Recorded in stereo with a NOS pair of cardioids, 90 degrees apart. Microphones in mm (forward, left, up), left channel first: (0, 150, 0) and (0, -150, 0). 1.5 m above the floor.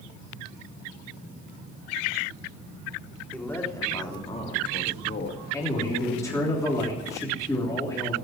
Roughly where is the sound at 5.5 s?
Ahead.